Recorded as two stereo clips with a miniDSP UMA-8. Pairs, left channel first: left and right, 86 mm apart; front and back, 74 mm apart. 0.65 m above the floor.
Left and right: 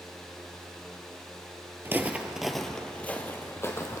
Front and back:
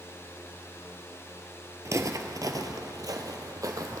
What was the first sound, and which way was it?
Footsteps, 145° right.